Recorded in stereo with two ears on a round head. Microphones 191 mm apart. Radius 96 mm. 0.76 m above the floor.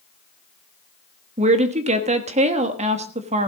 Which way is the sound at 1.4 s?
30° right (ahead or behind).